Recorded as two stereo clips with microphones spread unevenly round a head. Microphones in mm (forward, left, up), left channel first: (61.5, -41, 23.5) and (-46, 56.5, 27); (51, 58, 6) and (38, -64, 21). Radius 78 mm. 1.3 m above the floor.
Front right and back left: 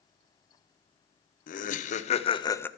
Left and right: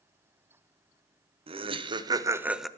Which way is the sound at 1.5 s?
55° right.